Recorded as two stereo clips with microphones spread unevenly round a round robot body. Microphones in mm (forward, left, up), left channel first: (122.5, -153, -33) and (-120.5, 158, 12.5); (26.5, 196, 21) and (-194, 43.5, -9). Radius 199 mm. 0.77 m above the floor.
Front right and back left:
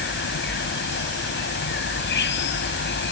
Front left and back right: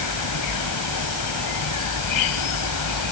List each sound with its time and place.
0.0 s an insect: 10° left